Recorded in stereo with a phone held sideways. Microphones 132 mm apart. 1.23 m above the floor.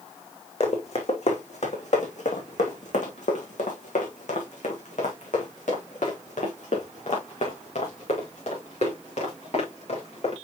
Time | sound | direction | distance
0.6 | running footsteps | 50° left (ahead or behind) | 3 m